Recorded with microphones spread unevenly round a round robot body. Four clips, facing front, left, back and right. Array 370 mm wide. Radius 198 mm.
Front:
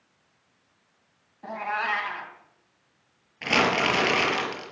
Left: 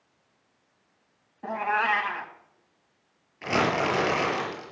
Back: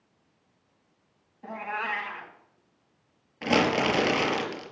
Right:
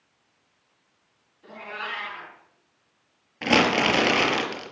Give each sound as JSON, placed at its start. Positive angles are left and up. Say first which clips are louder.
{"t": 1.4, "sound": "a cat meowing", "louder": "left 11 dB, front 4 dB", "azimuth_deg": 65, "distance_m": 3.0}
{"t": 3.4, "sound": "crumpling", "louder": "right 4 dB, even", "azimuth_deg": -85, "distance_m": 5.5}